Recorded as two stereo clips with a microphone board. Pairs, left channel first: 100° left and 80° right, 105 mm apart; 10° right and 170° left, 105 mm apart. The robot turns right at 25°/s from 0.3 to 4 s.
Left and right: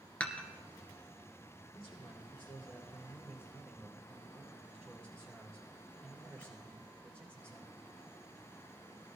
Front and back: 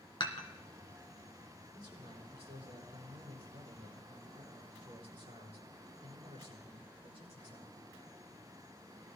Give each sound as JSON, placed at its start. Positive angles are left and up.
{"t": 0.2, "sound": "dishes clattering", "azimuth_deg": 25, "distance_m": 1.7}
{"t": 1.7, "sound": "a man speaking", "azimuth_deg": 125, "distance_m": 8.0}